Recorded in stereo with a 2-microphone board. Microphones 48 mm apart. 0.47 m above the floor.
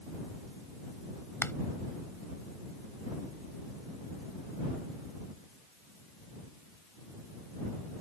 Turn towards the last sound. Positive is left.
turn(degrees=60)  # may be behind; listen again after turning